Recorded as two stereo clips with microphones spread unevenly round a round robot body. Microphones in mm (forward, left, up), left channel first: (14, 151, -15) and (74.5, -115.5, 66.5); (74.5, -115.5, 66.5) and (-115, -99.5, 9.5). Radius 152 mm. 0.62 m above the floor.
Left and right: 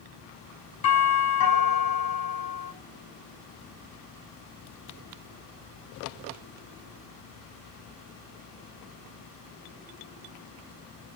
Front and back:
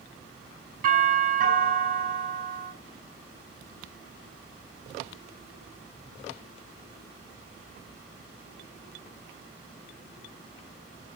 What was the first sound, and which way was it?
A doorbell, 130° left.